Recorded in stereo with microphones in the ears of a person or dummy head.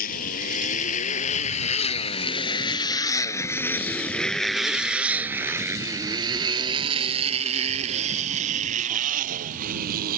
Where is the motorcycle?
50° left (ahead or behind); by 10.2 s 55° right (ahead or behind).